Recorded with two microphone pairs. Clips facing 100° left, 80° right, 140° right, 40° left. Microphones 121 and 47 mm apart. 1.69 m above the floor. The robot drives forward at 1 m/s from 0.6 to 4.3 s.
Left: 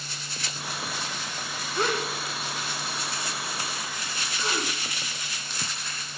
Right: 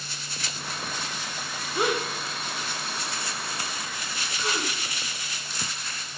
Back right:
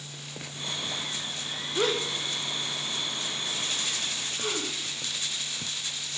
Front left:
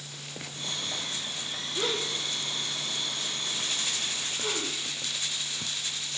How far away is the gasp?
About 1.1 m.